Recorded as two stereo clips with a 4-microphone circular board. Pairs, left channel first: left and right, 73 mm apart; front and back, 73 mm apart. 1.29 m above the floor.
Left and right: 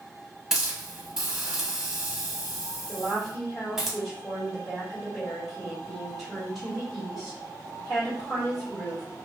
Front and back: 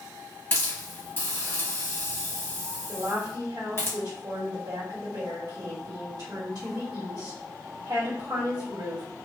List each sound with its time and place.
0.5 s a hiss: 15° right, 0.9 m
2.9 s a woman speaking: 175° left, 1.2 m